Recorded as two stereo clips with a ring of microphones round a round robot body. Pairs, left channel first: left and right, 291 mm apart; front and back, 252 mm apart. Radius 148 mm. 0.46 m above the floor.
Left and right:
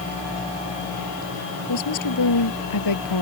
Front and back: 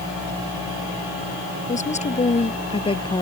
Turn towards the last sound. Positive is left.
turn(degrees=70)